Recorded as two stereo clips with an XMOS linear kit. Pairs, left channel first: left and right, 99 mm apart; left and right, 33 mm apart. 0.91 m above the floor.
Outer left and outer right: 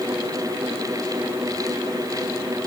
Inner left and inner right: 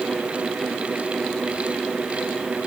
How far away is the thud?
I don't hear a thud.